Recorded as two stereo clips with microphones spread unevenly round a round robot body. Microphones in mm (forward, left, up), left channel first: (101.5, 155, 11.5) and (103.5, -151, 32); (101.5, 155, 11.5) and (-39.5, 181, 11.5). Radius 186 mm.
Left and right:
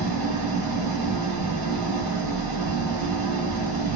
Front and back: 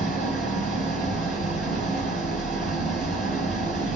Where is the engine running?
125° right, 1.2 m.